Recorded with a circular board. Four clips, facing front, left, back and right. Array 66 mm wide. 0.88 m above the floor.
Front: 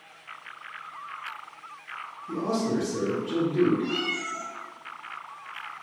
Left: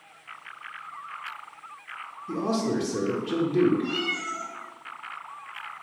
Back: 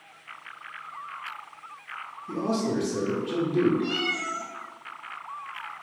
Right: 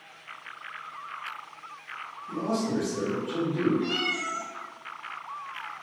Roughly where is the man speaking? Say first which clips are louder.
Left 2 dB, even; behind left.